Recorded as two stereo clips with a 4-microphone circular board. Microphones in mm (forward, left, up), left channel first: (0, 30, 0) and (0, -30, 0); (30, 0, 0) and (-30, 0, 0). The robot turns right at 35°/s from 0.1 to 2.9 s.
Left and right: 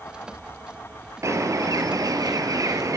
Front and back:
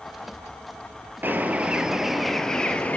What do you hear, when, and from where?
1.2 s a bird: 125° right, 1.0 m; by 3.0 s 65° right, 1.0 m